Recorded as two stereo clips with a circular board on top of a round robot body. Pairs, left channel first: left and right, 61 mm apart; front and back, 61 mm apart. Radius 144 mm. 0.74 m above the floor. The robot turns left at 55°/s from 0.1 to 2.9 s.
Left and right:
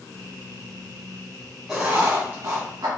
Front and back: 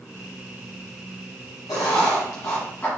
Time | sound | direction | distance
1.7 | writing | 5° right | 1.4 m